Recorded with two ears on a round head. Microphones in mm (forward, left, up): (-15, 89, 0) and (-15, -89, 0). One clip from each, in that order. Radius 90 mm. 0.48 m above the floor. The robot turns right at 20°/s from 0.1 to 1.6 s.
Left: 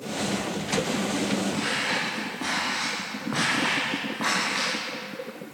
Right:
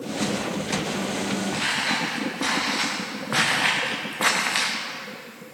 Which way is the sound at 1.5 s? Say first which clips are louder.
Right 6 dB; 40° right (ahead or behind).